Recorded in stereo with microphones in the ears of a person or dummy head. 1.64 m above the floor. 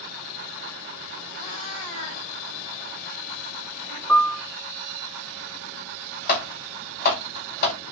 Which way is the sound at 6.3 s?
50° left (ahead or behind).